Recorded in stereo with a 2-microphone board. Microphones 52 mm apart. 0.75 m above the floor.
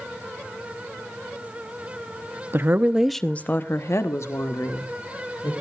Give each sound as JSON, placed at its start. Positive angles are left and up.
{"t": 2.5, "sound": "a woman speaking", "side_deg": -45, "distance_m": 0.8}